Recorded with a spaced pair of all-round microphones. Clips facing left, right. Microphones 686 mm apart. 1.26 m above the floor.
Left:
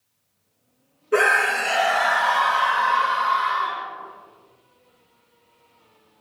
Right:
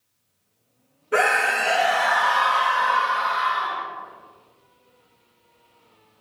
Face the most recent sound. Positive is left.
turn(degrees=5)  # may be behind; listen again after turning